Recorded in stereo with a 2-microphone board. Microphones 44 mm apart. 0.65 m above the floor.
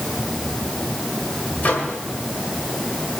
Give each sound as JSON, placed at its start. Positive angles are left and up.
{"t": 1.6, "sound": "a microwave", "side_deg": 40, "distance_m": 2.0}